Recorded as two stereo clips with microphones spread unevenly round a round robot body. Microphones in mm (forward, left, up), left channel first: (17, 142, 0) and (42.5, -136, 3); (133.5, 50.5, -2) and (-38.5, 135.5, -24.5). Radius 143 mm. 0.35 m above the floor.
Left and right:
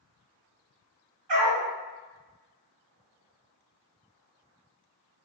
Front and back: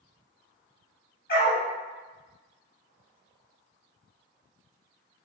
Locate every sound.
1.3 s a dog barking: 90° right, 1.9 m